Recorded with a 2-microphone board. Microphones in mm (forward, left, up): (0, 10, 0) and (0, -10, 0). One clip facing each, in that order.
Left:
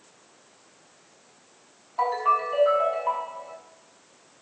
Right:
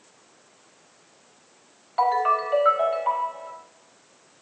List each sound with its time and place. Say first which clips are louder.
2.0 s a ringtone: right 2 dB; 70° right (ahead or behind), 4.5 m